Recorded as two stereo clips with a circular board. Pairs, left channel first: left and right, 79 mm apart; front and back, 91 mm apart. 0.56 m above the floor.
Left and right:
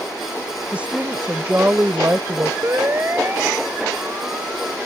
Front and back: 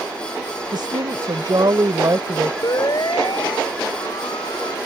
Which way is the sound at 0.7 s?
160° right.